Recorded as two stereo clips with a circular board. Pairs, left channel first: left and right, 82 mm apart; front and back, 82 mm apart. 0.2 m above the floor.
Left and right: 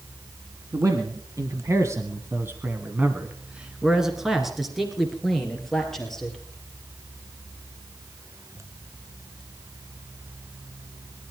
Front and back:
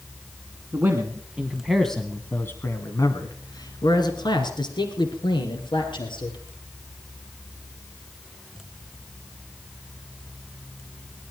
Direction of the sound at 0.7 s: 125° right.